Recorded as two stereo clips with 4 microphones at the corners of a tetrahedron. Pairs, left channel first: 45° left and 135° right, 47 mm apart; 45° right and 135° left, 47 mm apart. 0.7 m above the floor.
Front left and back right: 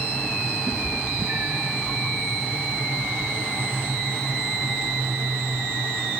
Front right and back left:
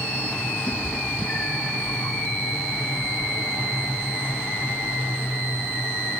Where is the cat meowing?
100° right, 2.5 m; by 1.7 s 115° right, 2 m.